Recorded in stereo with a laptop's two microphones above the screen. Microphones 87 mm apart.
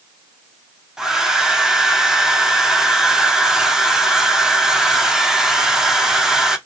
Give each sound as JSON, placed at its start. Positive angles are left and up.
{"t": 1.0, "sound": "a hair dryer", "side_deg": -5, "distance_m": 0.6}